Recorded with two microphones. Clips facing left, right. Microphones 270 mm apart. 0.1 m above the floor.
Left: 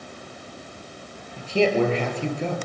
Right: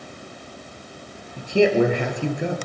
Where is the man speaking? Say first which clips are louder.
Right 3 dB; 15° right (ahead or behind), 2 m.